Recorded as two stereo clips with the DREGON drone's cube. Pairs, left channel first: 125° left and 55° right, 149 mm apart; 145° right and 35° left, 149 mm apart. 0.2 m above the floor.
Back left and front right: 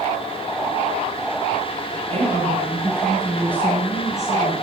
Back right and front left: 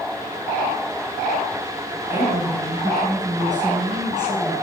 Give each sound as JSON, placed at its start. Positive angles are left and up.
{"t": 2.1, "sound": "a woman speaking", "azimuth_deg": -35, "distance_m": 1.5}